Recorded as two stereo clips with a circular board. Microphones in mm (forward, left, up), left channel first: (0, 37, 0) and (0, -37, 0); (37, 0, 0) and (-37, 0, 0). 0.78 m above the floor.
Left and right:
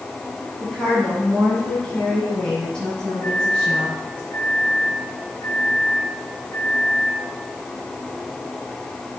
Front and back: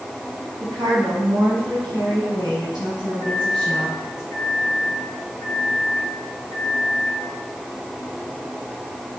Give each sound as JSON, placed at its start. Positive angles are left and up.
{"t": 0.6, "sound": "a woman speaking", "azimuth_deg": 165, "distance_m": 5.0}
{"t": 3.2, "sound": "a microwave", "azimuth_deg": 145, "distance_m": 3.5}